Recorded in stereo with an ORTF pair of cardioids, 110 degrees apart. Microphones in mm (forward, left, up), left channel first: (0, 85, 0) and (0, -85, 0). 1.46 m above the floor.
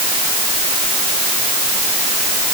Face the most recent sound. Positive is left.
No sound to turn to.